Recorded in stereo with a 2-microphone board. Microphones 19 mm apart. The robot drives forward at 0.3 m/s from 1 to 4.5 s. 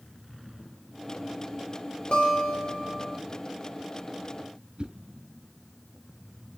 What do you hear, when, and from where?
2.1 s a guitar: 65° left (ahead or behind), 3.5 m; by 3.2 s 70° left (ahead or behind), 3.5 m
4.8 s a whoosh: 50° right (ahead or behind), 3 m